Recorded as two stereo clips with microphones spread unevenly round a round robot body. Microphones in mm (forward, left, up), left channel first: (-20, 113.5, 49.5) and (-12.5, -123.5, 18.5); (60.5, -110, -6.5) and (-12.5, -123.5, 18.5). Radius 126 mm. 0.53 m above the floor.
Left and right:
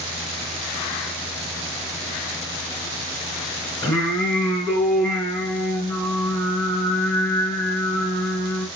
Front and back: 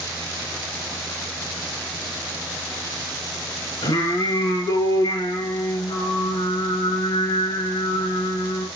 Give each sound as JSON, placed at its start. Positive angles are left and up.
{"t": 3.8, "sound": "singing", "azimuth_deg": 15, "distance_m": 3.5}